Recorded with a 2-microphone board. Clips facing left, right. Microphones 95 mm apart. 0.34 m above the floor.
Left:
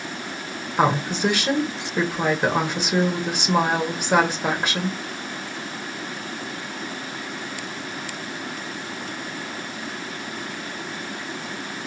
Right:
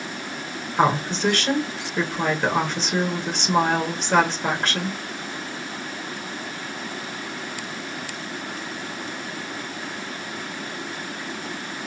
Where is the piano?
No piano in this recording.